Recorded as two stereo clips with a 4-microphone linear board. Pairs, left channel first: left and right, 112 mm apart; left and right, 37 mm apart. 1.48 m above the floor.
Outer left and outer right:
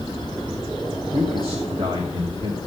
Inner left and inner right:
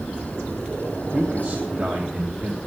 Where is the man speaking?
50° right (ahead or behind), 1.6 m.